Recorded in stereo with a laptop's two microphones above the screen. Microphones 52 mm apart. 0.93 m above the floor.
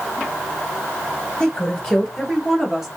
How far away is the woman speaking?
About 1.9 m.